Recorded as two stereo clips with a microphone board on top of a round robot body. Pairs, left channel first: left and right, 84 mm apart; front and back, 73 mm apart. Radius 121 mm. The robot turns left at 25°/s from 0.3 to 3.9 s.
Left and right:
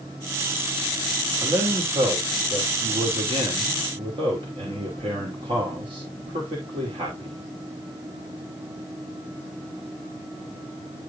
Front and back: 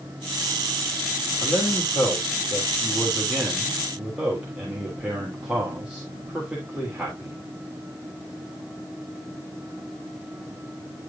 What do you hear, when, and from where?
1.4 s a man speaking: 40° right, 3 m; by 7.5 s 100° right, 3 m